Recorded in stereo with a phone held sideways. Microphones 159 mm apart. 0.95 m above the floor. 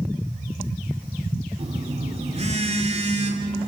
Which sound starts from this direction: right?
A phone buzzing, at 1.6 s.